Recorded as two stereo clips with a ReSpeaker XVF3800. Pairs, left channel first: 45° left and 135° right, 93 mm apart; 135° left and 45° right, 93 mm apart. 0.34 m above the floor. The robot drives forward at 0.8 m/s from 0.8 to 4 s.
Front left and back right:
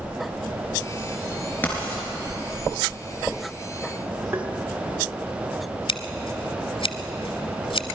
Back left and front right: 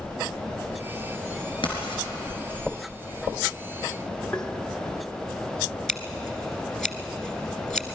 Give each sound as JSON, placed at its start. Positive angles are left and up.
{"t": 1.6, "sound": "writing", "azimuth_deg": 115, "distance_m": 4.0}
{"t": 4.3, "sound": "tapping", "azimuth_deg": -165, "distance_m": 0.9}
{"t": 5.9, "sound": "scissors", "azimuth_deg": 50, "distance_m": 0.9}